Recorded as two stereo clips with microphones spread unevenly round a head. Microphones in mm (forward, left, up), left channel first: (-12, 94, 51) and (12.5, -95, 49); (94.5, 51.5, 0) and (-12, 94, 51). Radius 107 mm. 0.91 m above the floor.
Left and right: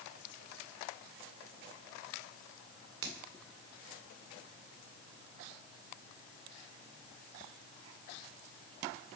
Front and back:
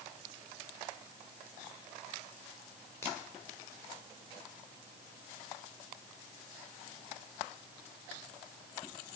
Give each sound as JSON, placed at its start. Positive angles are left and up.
{"t": 3.0, "sound": "a finger snap", "azimuth_deg": -100, "distance_m": 2.0}